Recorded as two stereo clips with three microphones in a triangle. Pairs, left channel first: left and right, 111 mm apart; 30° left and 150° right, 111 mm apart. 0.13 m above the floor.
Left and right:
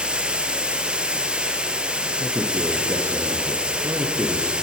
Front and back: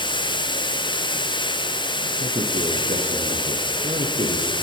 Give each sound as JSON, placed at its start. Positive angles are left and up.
{"t": 0.0, "sound": "running water", "azimuth_deg": -10, "distance_m": 1.3}
{"t": 2.2, "sound": "a man speaking", "azimuth_deg": -160, "distance_m": 3.5}